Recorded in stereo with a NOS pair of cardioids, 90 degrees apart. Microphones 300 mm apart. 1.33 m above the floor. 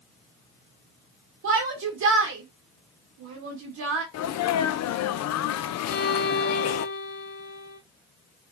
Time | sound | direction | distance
1.4 | a shout | 65° right | 1.9 m
4.1 | a sneeze | 60° left | 0.8 m
5.9 | a violin | 50° left | 2.5 m